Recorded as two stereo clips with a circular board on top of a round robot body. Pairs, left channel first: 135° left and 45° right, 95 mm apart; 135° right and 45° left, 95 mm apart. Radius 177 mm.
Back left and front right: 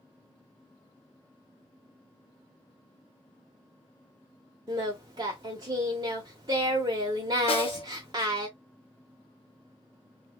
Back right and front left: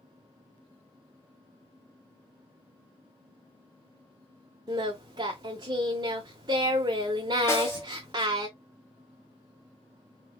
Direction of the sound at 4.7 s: Straight ahead.